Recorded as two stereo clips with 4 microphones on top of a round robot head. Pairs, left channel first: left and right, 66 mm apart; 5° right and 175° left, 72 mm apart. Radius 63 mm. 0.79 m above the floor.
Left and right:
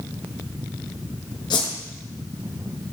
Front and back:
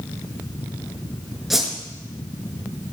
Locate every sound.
1.5 s a whoosh: 90° left, 5 m